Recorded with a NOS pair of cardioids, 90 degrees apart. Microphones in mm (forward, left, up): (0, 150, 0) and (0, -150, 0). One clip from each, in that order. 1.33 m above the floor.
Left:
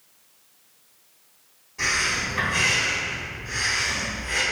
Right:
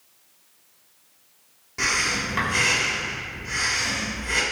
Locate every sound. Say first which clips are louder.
1.8 s breathing: even; 70° right, 1.7 m